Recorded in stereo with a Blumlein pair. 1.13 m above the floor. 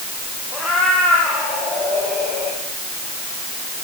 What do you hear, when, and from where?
0.5 s a cat meowing: 15° left, 9 m; by 2.6 s 20° left, 9 m